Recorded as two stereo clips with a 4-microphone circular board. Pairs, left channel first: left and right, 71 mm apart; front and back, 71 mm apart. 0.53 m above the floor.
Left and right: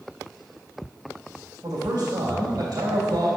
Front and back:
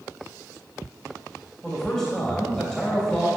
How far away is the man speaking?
About 2.5 m.